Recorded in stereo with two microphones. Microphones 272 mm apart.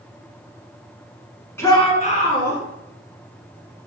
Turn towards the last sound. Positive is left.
turn(degrees=45)  # may be behind; listen again after turning